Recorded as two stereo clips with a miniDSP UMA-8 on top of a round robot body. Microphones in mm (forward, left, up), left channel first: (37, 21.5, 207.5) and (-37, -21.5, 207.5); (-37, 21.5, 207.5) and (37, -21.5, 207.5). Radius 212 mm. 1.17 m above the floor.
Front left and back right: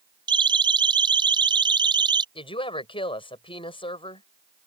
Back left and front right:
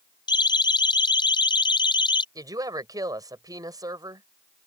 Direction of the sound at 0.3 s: 175° right.